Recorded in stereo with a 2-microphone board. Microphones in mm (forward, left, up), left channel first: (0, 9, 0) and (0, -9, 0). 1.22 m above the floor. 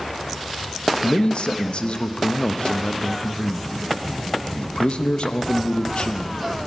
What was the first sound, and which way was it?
A man speaking, 75° left (ahead or behind).